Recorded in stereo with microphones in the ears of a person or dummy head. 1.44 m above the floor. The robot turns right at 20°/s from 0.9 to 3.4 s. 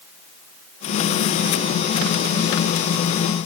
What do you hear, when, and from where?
Only background noise.